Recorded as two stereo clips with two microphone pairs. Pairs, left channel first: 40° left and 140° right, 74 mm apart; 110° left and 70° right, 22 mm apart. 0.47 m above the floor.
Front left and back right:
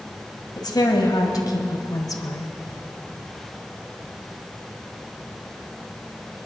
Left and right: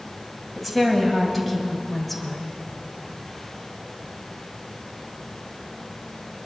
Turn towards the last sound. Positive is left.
turn(degrees=25)